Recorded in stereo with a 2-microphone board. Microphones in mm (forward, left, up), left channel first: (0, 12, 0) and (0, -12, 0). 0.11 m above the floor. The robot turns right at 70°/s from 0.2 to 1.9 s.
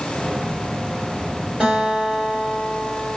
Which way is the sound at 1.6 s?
50° right (ahead or behind).